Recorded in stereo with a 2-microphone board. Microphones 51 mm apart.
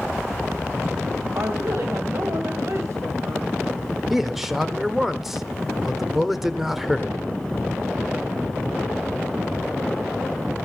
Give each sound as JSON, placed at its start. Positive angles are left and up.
{"t": 1.4, "sound": "a woman speaking", "side_deg": -60, "distance_m": 2.0}
{"t": 4.1, "sound": "a man speaking", "side_deg": -5, "distance_m": 1.1}